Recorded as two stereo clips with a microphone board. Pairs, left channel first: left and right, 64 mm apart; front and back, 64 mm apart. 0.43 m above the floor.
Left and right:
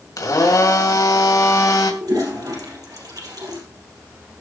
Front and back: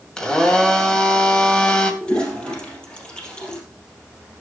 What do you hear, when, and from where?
0.2 s a blender: 75° left, 1.9 m
2.0 s a toilet flushing: 75° right, 3.5 m